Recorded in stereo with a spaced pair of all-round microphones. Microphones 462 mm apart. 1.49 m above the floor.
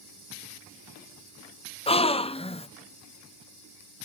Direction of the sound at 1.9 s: 15° left (ahead or behind).